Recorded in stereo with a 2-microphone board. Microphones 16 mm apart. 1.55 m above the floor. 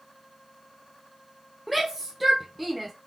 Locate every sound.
1.7 s a shout: 5° right (ahead or behind), 0.7 m